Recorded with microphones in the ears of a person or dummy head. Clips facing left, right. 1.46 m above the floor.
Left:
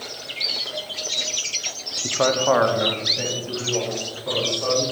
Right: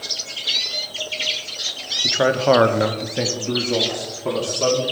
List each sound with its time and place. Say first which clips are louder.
2.0 s a man speaking: right 3 dB; 5° right (ahead or behind), 0.8 m; by 4.8 s 70° right (ahead or behind), 2.5 m